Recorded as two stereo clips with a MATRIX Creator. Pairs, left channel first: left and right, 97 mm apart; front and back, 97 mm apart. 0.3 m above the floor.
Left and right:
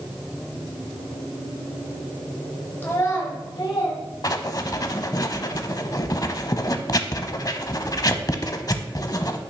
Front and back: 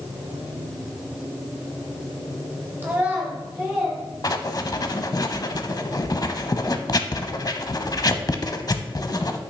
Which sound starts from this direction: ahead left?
Writing, at 4.2 s.